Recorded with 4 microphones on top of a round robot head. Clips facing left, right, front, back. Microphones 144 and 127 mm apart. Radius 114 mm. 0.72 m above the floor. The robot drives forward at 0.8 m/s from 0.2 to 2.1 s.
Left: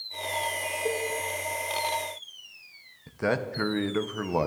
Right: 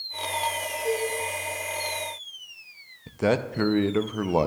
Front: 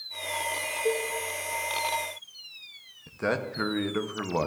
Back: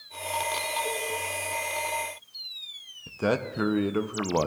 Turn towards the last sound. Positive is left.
turn(degrees=-125)